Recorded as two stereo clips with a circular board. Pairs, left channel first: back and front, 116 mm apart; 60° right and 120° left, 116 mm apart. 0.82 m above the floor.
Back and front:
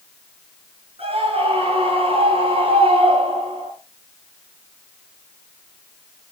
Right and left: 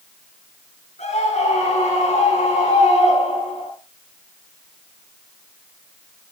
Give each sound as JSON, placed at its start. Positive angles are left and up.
{"t": 1.0, "sound": "a scream", "azimuth_deg": -40, "distance_m": 6.5}